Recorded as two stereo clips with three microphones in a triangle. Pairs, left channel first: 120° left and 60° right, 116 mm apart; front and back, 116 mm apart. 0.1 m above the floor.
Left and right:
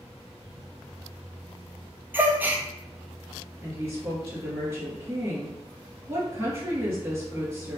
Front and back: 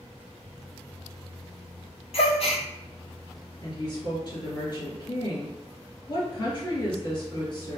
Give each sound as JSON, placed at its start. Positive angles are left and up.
{"t": 2.1, "sound": "a gasp", "azimuth_deg": 15, "distance_m": 0.5}
{"t": 3.6, "sound": "a woman speaking", "azimuth_deg": -5, "distance_m": 1.7}